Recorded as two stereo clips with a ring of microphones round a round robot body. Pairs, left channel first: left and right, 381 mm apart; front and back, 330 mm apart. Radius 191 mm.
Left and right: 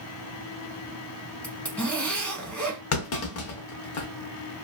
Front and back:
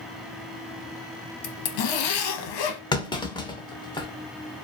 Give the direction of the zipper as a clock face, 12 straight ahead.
12 o'clock.